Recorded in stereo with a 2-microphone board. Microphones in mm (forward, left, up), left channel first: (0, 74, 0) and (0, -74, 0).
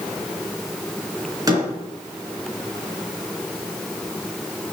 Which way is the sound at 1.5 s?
25° right (ahead or behind).